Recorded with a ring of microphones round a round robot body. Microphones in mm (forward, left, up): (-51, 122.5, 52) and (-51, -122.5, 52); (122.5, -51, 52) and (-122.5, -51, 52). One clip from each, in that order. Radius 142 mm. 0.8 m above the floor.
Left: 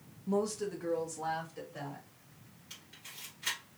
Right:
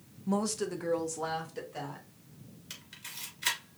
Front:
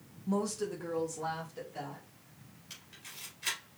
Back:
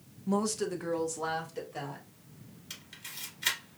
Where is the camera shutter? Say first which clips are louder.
Right 4 dB, back 4 dB; 130° right, 2 m.